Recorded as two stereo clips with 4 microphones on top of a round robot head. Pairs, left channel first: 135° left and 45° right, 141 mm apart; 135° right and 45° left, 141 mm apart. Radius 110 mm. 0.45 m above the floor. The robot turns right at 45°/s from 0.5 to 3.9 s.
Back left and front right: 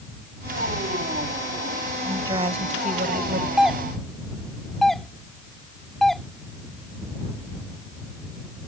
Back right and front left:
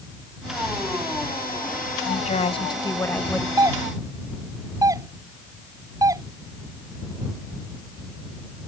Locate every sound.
2.0 s a woman speaking: 110° right; by 3.5 s 45° right
3.6 s a doorbell: 40° left; by 6.2 s 55° left